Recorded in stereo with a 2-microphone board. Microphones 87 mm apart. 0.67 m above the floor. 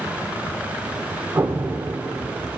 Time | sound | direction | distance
1.4 | an explosion | 25° right (ahead or behind) | 1.9 m